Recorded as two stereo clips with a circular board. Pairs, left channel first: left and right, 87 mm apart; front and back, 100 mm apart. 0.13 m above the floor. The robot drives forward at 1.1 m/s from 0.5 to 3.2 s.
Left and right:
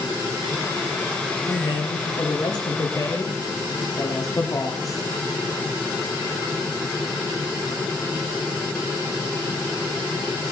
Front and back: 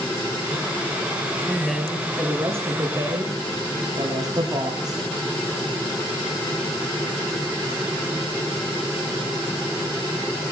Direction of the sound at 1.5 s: 80° left.